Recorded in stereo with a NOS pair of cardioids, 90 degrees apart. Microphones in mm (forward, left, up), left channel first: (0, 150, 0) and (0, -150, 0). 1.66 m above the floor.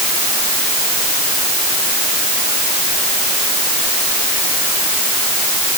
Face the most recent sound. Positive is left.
No sound to turn to.